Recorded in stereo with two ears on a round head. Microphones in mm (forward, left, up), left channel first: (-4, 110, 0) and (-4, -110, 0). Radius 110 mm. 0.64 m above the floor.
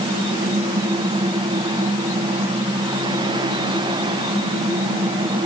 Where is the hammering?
I don't hear hammering.